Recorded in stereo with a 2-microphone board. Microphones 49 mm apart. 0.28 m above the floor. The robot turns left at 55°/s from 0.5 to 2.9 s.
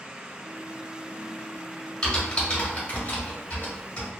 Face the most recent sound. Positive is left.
turn(degrees=25)  # may be behind; listen again after turning